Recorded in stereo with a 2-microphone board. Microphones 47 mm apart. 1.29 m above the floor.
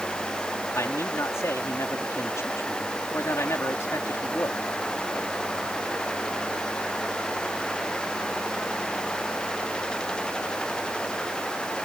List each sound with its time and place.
0.8 s a man speaking: 80° left